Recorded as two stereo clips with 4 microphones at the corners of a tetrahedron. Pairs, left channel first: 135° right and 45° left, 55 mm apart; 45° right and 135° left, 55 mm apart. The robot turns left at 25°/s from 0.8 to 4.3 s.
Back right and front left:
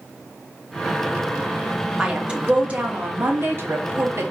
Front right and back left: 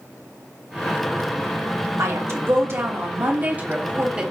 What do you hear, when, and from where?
2.0 s a woman speaking: 120° left, 1.0 m; by 4.3 s 60° left, 1.0 m